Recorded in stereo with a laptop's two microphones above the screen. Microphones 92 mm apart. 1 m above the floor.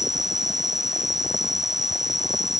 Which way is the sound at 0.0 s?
50° right (ahead or behind).